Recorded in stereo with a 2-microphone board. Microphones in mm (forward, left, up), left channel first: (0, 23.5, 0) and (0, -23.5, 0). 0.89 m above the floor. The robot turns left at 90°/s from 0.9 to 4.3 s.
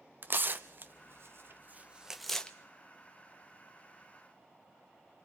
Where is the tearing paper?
45° right (ahead or behind), 0.9 m; by 2.5 s 20° left (ahead or behind), 0.9 m.